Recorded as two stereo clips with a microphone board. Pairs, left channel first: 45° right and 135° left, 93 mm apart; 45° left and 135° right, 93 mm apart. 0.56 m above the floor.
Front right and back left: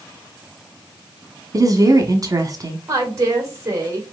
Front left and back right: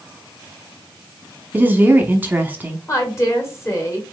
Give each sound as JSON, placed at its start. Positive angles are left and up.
{"t": 1.5, "sound": "a woman speaking", "azimuth_deg": 160, "distance_m": 0.8}
{"t": 2.9, "sound": "a woman speaking", "azimuth_deg": 90, "distance_m": 1.7}